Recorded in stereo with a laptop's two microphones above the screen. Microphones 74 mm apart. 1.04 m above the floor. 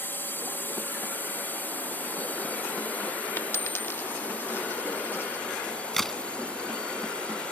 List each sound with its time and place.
0.0 s a drone: 30° left (ahead or behind); by 7.5 s 15° left (ahead or behind)
3.4 s a dropped coin: 35° left (ahead or behind)
5.5 s a crack: 5° left (ahead or behind)